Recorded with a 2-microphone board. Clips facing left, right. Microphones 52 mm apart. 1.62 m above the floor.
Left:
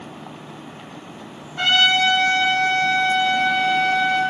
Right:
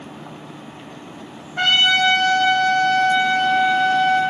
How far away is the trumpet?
About 1.6 m.